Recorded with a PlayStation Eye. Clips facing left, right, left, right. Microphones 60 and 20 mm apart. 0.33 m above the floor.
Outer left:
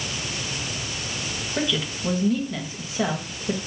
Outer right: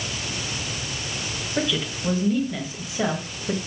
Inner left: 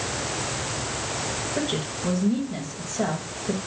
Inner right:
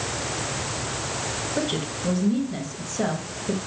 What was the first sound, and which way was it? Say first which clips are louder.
A woman speaking: outer right 1 dB, inner right 2 dB; centre (ahead or behind).